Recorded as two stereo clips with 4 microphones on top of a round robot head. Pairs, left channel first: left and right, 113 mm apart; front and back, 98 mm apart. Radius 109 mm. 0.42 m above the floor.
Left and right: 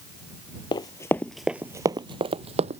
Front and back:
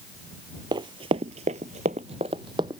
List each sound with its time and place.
0.7 s running footsteps: 140° left; by 2.8 s 120° right